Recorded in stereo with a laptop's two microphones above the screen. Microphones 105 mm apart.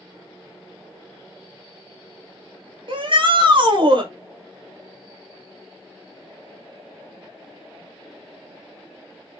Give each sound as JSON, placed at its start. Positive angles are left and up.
{"t": 2.9, "sound": "a shout", "side_deg": -50, "distance_m": 0.9}